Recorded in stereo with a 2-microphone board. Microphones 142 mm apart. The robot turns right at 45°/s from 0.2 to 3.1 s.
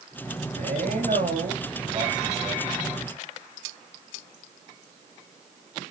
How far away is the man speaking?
About 7.5 m.